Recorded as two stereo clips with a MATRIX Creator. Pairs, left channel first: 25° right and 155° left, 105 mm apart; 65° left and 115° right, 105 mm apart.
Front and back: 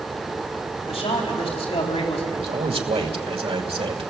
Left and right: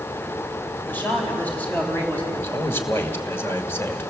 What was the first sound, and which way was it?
A man speaking, 5° right.